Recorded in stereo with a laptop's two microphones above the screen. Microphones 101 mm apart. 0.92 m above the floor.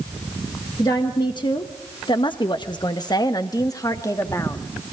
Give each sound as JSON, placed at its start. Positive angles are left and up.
{"t": 0.8, "sound": "a woman speaking", "side_deg": 40, "distance_m": 1.2}